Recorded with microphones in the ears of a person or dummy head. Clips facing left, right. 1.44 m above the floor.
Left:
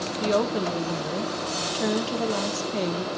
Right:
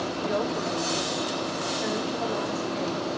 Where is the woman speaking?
55° left (ahead or behind), 1.2 m.